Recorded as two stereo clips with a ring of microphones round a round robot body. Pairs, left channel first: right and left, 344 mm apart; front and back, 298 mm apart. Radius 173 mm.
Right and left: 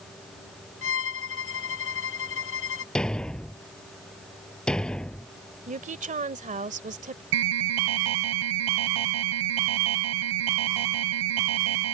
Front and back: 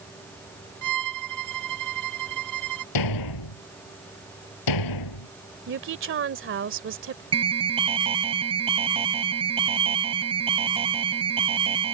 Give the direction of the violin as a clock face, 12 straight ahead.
5 o'clock.